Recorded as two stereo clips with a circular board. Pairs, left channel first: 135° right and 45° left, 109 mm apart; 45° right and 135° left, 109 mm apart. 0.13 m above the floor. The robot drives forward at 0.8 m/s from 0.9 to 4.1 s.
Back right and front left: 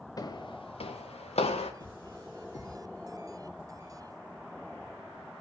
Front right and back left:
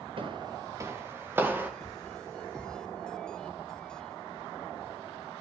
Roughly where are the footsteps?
Behind.